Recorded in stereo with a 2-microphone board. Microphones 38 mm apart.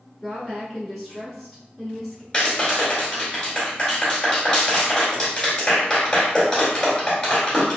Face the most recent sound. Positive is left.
turn(degrees=15)  # may be behind; listen again after turning